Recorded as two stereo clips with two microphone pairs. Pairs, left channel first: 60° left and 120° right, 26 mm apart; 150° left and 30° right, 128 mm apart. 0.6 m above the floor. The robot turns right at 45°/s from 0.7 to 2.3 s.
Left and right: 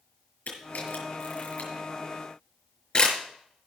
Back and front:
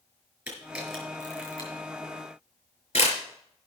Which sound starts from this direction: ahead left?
A camera shutter, at 0.5 s.